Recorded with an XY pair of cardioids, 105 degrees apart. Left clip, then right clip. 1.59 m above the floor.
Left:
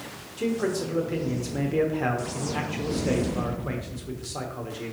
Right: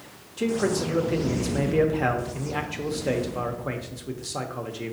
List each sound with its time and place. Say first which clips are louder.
0.4 s a man speaking: right 2 dB; 20° right, 0.9 m